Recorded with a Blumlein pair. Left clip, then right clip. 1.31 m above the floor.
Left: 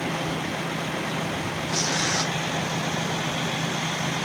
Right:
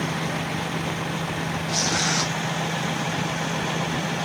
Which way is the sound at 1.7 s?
10° right.